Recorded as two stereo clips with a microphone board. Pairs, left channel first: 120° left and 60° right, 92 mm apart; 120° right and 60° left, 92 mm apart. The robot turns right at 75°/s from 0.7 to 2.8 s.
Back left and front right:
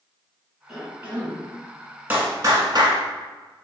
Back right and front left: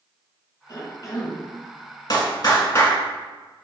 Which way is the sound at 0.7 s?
145° right.